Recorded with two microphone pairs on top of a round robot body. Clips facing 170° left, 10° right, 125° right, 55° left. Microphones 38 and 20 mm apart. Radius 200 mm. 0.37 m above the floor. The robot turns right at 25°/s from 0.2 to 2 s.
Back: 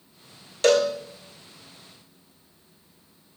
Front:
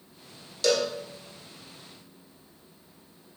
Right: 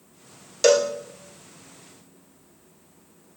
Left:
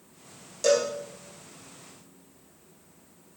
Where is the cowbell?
145° right, 1.9 m; by 0.9 s 140° right, 1.9 m.